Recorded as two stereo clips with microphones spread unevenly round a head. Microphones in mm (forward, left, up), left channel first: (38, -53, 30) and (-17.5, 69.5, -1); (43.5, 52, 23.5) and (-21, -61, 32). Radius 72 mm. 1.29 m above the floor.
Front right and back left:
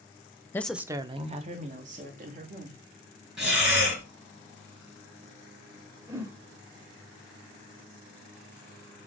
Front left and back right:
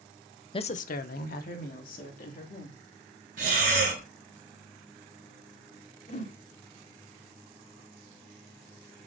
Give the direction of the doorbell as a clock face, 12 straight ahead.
No doorbell in this recording.